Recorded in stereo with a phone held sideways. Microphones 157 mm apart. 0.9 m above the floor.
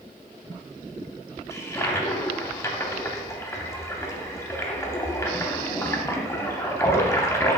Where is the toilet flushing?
15° left (ahead or behind), 0.6 m.